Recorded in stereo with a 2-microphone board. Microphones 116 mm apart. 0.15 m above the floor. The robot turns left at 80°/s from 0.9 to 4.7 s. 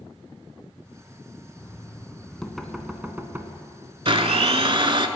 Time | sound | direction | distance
1.6 | knocking | 20° left (ahead or behind) | 0.7 m
4.0 | a blender | 65° right | 0.5 m